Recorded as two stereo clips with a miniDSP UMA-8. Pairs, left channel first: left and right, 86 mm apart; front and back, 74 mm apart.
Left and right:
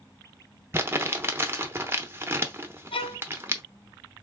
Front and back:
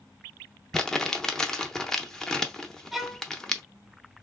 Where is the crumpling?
75° right, 0.7 m.